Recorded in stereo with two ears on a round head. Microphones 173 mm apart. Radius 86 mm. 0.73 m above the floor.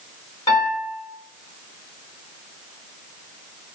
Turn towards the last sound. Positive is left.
turn(degrees=25)  # may be behind; listen again after turning